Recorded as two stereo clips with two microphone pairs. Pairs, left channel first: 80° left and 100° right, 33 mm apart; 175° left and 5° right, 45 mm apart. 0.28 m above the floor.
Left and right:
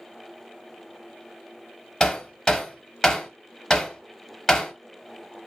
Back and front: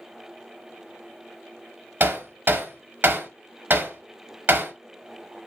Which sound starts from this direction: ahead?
Hammering, at 2.0 s.